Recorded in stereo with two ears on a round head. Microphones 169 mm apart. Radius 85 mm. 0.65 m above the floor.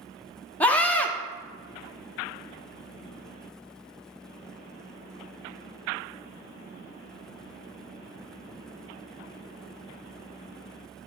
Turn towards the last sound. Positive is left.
turn(degrees=10)  # may be behind; listen again after turning